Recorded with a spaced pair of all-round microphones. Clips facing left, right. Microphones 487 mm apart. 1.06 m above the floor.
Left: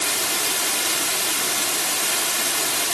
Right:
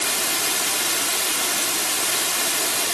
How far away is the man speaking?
I don't hear a man speaking.